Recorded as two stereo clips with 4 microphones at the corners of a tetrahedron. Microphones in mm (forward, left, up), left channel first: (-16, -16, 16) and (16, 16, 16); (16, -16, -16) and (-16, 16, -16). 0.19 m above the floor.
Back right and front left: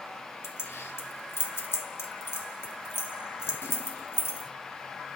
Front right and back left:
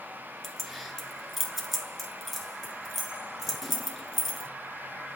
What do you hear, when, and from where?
0.4 s keys jangling: 130° right, 1.6 m